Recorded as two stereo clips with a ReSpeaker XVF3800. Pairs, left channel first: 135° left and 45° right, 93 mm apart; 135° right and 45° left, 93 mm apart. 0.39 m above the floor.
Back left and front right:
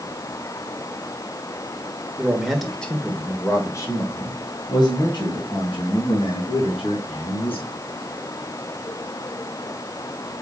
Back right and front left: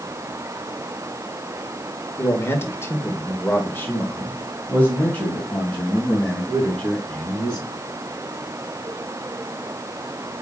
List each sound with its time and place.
2.2 s a man speaking: 110° right, 1.2 m; by 7.7 s 145° left, 4 m